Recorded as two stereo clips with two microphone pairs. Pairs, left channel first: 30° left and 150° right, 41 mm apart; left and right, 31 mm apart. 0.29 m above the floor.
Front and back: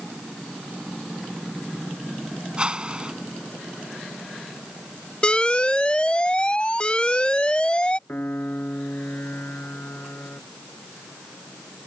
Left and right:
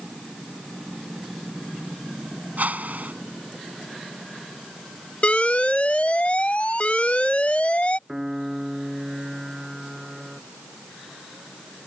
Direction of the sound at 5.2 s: 85° left.